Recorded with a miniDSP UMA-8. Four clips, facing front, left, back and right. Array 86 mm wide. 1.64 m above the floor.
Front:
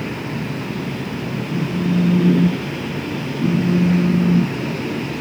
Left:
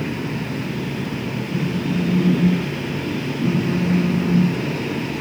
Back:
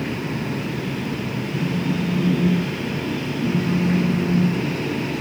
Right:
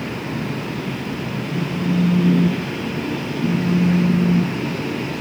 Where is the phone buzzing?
5° right, 0.6 m.